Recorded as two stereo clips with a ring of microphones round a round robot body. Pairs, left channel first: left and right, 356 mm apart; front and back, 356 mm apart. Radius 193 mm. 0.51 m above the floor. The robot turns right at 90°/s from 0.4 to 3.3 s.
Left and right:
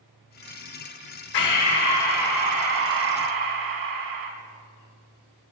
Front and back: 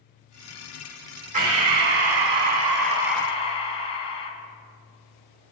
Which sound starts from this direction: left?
Breathing, at 1.3 s.